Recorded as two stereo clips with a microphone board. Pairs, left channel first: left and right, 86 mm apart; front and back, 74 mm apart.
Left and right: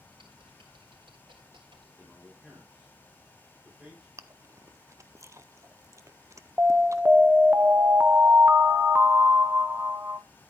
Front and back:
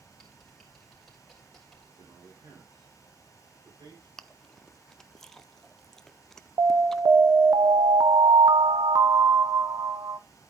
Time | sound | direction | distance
0.1 | typing on a keyboard | 85° right | 3 m
2.0 | a man speaking | 170° right | 7 m
4.2 | chewing | 75° right | 0.6 m
6.6 | an alarm | 155° right | 0.9 m